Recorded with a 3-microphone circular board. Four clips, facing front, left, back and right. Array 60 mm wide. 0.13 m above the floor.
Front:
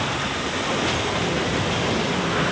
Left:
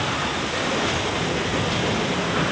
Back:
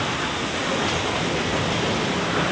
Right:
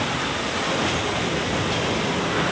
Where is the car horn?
No car horn in this recording.